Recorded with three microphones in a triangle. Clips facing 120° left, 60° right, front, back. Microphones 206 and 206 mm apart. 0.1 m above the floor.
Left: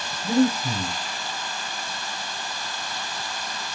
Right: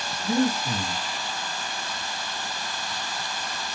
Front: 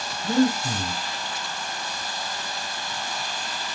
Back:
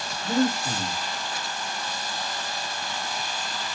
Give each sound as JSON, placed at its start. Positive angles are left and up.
{"t": 0.2, "sound": "breathing", "azimuth_deg": 60, "distance_m": 5.0}